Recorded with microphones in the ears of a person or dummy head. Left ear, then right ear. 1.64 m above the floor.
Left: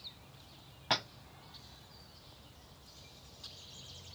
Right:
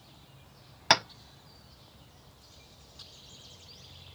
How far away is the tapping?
About 0.5 m.